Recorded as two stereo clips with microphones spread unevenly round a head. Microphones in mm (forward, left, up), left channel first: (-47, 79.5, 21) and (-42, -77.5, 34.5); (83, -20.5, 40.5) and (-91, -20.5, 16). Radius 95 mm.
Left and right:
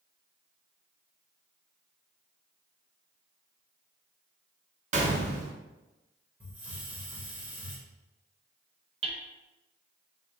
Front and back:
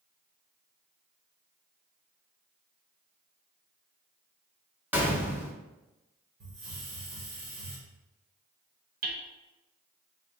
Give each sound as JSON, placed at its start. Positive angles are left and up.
{"t": 4.9, "sound": "a gunshot", "azimuth_deg": -95, "distance_m": 0.7}
{"t": 6.4, "sound": "a hiss", "azimuth_deg": -165, "distance_m": 1.7}
{"t": 9.0, "sound": "hammering", "azimuth_deg": -145, "distance_m": 0.9}